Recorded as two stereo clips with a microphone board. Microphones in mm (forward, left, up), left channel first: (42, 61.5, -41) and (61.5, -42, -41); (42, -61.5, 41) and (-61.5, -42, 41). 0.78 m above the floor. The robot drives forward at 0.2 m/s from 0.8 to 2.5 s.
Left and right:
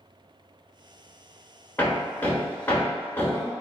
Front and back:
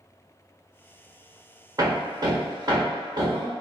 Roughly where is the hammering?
Behind.